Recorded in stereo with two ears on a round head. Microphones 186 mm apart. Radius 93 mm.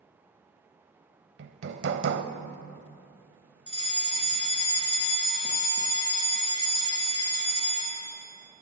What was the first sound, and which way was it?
Hammering, 55° right (ahead or behind).